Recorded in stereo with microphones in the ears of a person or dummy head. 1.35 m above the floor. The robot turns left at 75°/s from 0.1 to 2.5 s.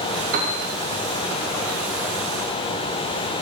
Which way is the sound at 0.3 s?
50° right (ahead or behind).